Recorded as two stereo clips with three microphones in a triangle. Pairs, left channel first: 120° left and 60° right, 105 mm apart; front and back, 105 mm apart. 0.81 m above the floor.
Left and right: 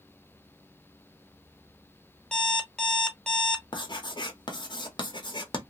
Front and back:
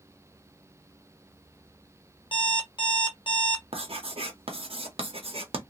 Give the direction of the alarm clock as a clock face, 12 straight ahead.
11 o'clock.